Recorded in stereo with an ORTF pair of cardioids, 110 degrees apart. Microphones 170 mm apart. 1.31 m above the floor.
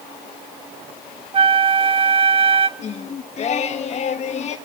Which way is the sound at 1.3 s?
35° right.